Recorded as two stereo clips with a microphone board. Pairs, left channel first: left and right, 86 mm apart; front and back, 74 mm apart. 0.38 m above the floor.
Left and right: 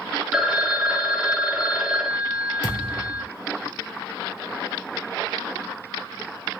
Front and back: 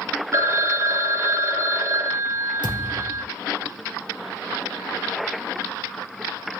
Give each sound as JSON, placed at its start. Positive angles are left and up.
{"t": 0.3, "sound": "a phone ringing", "azimuth_deg": -170, "distance_m": 0.6}
{"t": 2.6, "sound": "a thud", "azimuth_deg": -175, "distance_m": 2.0}